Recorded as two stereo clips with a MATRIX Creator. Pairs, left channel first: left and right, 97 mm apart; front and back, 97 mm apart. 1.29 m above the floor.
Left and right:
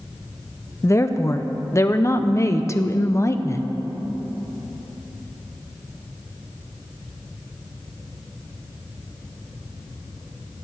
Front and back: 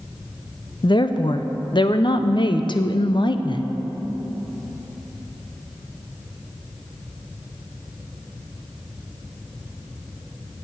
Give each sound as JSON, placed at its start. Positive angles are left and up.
{"t": 0.8, "sound": "a woman speaking", "azimuth_deg": 30, "distance_m": 0.6}